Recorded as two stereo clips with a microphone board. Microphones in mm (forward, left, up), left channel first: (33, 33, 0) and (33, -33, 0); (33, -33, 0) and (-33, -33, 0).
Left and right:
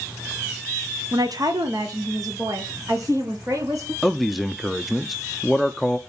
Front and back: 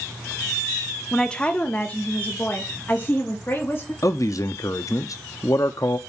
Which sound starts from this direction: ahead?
A man speaking, at 4.0 s.